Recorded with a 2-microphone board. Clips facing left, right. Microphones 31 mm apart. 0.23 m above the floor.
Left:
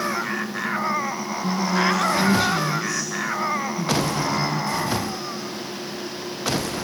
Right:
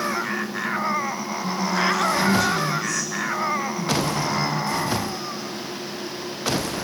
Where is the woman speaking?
35° left (ahead or behind), 2 m.